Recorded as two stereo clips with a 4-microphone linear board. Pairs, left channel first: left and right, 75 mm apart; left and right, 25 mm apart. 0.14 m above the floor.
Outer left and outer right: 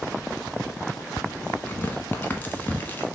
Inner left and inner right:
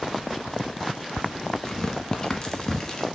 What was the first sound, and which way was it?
Tearing paper, 25° left (ahead or behind).